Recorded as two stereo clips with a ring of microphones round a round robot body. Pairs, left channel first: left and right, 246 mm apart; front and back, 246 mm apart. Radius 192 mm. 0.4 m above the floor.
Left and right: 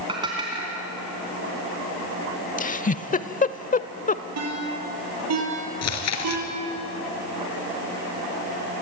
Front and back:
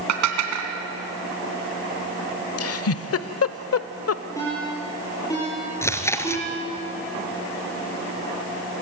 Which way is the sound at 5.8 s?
80° left.